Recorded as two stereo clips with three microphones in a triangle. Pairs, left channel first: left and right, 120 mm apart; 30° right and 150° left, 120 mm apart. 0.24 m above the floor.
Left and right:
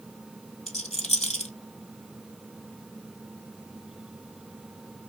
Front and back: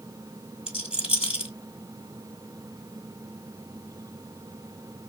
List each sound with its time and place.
0.7 s a rattle: 70° left, 1.5 m